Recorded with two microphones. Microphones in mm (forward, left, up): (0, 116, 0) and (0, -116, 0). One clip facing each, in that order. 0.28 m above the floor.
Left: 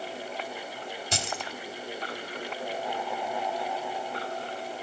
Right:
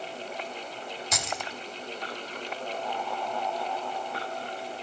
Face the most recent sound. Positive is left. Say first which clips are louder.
# left 1 dB
turn(degrees=30)  # may be behind; listen again after turning